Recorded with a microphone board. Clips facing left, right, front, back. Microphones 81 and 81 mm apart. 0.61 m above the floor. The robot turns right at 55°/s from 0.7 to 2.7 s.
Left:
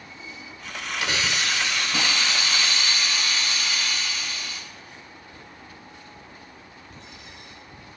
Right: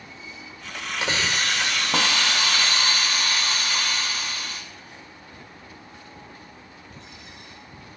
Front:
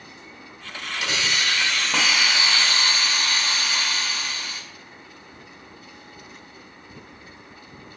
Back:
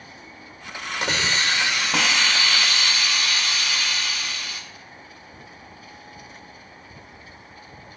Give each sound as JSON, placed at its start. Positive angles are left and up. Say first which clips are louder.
{"t": 1.0, "sound": "a hiss", "louder": "right 1 dB, back 2 dB", "azimuth_deg": -145, "distance_m": 1.9}